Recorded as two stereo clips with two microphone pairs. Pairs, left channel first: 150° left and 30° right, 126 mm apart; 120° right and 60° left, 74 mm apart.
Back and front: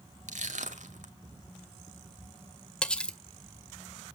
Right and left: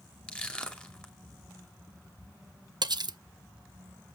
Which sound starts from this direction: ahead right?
Crushing, at 0.3 s.